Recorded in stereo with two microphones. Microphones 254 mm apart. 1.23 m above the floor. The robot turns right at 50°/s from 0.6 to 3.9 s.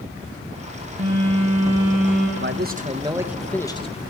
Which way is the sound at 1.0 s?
60° right.